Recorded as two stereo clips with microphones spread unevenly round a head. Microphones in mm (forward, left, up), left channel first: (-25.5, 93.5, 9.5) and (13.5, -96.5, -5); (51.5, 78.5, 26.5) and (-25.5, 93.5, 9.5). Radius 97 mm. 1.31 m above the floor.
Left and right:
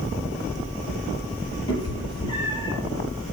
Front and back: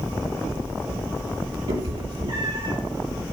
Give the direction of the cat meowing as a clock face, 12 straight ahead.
6 o'clock.